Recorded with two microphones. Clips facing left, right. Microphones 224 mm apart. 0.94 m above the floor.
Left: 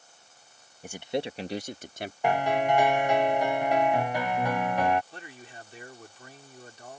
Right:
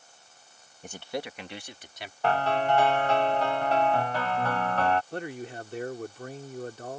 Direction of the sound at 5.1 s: 60° right (ahead or behind).